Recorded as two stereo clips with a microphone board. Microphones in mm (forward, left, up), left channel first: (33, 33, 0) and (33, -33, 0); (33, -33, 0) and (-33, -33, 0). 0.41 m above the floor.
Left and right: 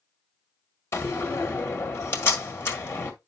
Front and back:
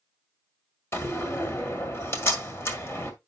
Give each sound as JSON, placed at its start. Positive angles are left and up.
{"t": 0.9, "sound": "a door slam", "azimuth_deg": 45, "distance_m": 1.7}